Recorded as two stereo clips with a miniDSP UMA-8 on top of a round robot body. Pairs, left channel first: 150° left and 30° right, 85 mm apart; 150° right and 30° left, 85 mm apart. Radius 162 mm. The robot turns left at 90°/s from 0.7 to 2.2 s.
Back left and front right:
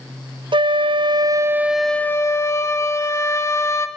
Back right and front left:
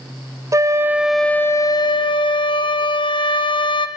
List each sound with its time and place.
0.5 s a flute: 20° right, 1.0 m; by 3.9 s 155° right, 1.0 m